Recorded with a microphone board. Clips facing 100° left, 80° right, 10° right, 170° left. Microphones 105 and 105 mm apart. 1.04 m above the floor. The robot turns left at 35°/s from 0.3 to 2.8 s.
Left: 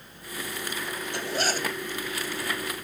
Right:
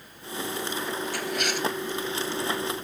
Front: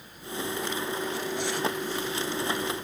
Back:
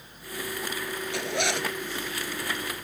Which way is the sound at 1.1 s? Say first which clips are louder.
Left 4 dB, back 1 dB; 170° left.